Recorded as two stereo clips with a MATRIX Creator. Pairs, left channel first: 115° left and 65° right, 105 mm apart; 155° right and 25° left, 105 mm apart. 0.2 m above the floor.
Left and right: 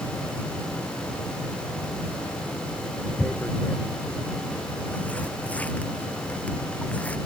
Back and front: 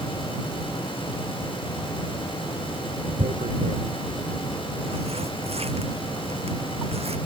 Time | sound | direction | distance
3.2 | tearing paper | 35° left | ?